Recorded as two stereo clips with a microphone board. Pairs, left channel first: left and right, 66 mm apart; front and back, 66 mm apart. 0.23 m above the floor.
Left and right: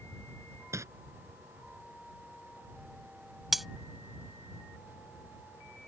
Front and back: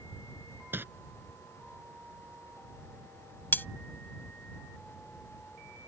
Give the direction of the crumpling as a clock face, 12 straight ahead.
4 o'clock.